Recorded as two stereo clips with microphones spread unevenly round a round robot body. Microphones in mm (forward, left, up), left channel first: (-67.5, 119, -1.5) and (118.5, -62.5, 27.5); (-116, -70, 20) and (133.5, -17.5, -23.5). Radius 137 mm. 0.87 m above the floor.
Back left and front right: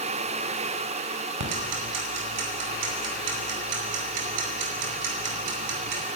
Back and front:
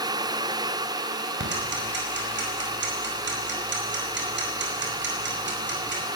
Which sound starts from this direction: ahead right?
Ticking, at 1.4 s.